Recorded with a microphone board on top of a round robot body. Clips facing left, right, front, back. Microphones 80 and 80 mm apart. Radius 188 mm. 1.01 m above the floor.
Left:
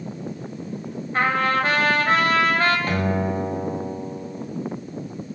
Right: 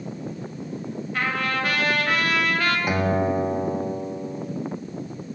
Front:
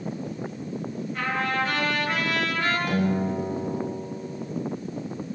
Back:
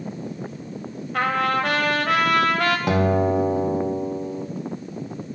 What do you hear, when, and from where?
1.1 s a trumpet: 150° left, 5.5 m
2.9 s a guitar: 170° right, 2.5 m